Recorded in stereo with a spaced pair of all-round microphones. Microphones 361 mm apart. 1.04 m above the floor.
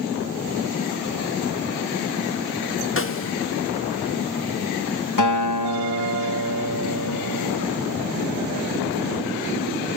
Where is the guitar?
50° left (ahead or behind), 1.0 m.